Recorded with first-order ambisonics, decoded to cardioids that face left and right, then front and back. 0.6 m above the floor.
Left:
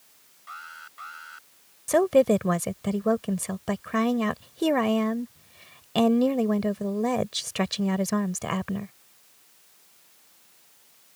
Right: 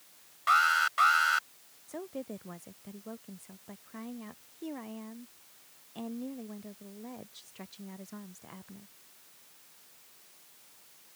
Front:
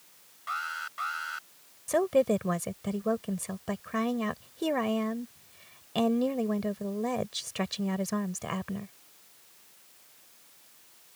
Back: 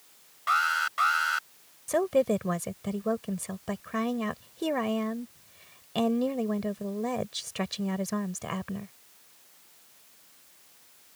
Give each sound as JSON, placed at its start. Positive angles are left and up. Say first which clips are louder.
{"t": 0.5, "sound": "an alarm", "louder": "right 17 dB, back 9 dB", "azimuth_deg": -120}
{"t": 1.9, "sound": "a woman speaking", "louder": "left 22 dB, even", "azimuth_deg": 90}